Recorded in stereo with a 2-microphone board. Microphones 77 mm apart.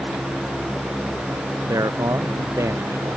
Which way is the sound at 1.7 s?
45° right (ahead or behind).